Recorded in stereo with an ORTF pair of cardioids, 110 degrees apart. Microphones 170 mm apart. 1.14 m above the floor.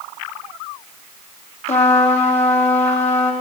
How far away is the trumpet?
About 1.5 m.